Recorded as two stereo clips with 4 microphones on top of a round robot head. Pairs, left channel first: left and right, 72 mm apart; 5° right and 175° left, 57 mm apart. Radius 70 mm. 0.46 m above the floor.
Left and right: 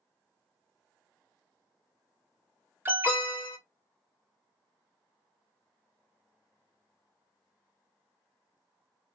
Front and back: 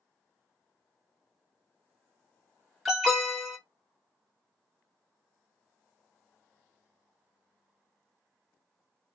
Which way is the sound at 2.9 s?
95° right.